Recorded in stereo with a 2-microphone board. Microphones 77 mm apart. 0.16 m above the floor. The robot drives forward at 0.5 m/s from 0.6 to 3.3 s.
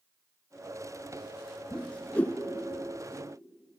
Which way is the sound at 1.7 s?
15° left (ahead or behind).